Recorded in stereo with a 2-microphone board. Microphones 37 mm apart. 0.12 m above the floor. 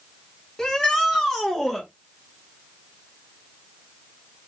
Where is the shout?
10° left (ahead or behind), 1.4 m; by 1.9 s 5° left (ahead or behind), 1.7 m.